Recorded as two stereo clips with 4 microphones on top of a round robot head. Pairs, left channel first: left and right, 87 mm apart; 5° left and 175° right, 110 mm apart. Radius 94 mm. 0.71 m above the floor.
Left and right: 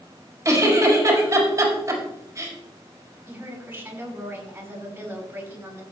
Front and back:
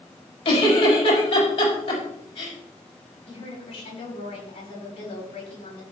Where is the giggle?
35° right, 5.5 m.